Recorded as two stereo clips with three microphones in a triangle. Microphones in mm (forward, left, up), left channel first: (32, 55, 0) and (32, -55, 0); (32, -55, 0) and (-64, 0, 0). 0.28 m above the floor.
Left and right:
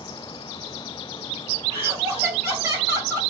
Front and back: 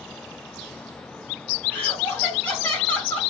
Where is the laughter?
90° right, 1.6 m.